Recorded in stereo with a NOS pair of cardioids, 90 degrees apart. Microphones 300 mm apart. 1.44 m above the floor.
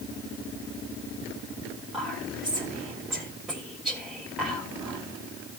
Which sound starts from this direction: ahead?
Whispering, at 1.9 s.